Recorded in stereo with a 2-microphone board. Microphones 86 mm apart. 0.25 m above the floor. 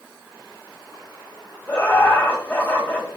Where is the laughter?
25° left (ahead or behind), 1.7 m.